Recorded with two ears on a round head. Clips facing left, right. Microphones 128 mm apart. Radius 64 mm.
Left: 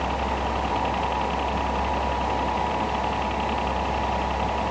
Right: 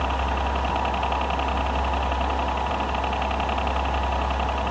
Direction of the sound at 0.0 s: 60° right (ahead or behind).